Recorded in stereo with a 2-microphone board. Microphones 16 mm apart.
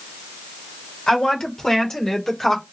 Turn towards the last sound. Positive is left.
turn(degrees=20)  # may be behind; listen again after turning